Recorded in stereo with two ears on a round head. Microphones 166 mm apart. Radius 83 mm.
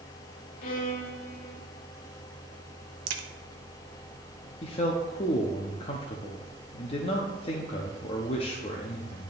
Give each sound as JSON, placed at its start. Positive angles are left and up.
{"t": 0.6, "sound": "a violin", "side_deg": 50, "distance_m": 0.8}
{"t": 3.1, "sound": "a crack", "side_deg": -85, "distance_m": 0.7}
{"t": 4.6, "sound": "a man speaking", "side_deg": 35, "distance_m": 0.7}